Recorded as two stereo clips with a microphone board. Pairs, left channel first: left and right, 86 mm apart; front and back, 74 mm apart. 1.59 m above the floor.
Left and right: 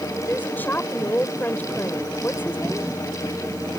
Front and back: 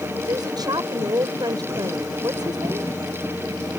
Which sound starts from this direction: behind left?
A woman speaking, at 0.3 s.